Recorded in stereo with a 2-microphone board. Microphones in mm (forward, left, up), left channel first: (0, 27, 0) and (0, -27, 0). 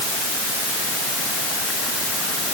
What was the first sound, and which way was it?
Only background noise.